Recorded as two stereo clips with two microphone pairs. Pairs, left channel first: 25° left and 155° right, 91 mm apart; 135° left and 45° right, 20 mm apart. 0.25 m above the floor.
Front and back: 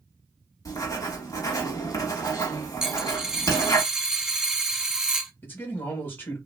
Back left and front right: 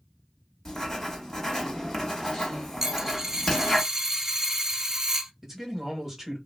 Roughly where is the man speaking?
Ahead.